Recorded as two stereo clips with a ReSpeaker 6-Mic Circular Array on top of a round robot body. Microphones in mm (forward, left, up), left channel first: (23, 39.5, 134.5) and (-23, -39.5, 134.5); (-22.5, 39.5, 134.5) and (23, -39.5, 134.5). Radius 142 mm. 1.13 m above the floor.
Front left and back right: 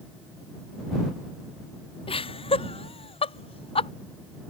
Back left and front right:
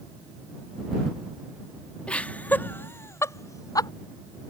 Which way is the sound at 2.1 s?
45° left.